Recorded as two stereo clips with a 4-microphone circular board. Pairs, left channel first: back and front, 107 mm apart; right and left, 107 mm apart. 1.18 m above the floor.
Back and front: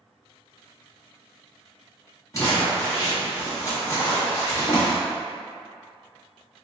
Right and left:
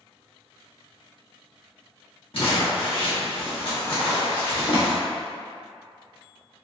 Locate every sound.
2.3 s crumpling: 120° right, 1.7 m